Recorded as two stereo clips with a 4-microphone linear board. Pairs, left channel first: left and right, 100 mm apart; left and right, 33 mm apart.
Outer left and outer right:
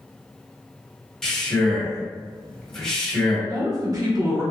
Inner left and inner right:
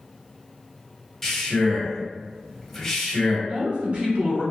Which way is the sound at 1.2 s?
5° left (ahead or behind).